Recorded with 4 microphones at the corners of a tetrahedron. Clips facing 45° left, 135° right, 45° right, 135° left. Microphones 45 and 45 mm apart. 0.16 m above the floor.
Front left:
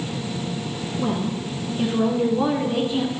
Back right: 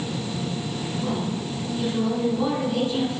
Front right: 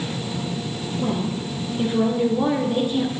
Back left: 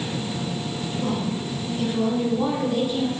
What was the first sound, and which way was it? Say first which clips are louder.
A woman speaking: front left 4 dB, front right 2 dB; 20° left.